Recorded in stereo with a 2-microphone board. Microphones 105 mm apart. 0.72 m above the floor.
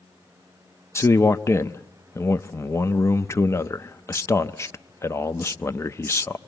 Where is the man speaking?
25° left (ahead or behind), 0.6 m.